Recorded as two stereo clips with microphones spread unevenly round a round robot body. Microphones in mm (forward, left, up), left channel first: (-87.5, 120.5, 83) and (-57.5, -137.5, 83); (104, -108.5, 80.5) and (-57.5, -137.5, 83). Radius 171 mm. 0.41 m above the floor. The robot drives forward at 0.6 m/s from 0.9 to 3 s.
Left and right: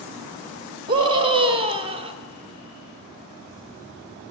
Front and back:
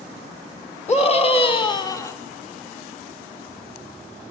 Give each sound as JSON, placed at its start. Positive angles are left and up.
{"t": 0.9, "sound": "a scream", "azimuth_deg": -20, "distance_m": 1.6}